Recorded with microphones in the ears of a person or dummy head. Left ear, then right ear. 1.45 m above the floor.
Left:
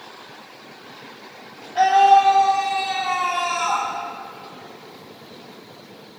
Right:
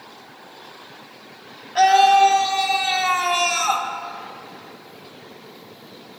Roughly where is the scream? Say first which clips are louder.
Even; right.